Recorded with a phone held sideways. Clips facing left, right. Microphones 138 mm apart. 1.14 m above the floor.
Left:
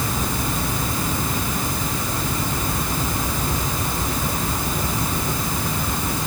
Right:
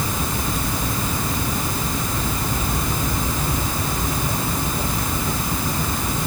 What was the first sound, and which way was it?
Only background noise.